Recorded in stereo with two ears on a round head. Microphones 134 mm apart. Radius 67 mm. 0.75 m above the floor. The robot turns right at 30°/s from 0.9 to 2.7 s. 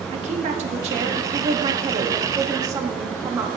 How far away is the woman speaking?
About 1.3 m.